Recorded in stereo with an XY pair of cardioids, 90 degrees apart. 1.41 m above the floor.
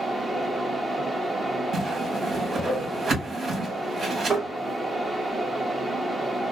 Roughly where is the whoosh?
Ahead right.